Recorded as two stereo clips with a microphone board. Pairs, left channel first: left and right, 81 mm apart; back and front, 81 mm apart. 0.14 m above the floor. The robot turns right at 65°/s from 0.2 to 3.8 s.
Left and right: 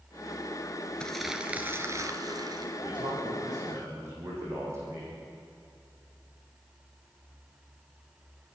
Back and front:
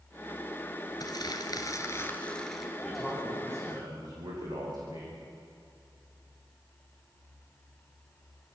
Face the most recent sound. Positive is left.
turn(degrees=-35)